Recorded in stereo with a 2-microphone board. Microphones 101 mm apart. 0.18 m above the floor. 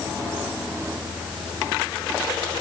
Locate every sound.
Only background noise.